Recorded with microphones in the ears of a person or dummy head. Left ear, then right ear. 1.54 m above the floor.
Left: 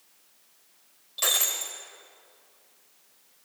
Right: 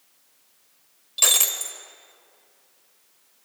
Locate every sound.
1.2 s breaking glass: 15° right (ahead or behind), 1.3 m